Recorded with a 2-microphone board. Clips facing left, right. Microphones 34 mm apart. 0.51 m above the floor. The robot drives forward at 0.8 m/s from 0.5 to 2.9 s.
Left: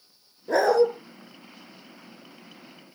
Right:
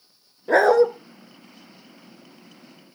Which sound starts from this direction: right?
A dog barking, at 0.5 s.